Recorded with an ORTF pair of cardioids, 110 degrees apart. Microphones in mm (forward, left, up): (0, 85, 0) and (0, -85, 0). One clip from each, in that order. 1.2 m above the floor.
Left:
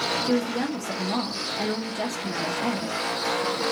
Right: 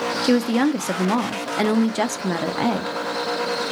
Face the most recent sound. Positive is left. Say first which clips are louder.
# right 6 dB
turn(degrees=-50)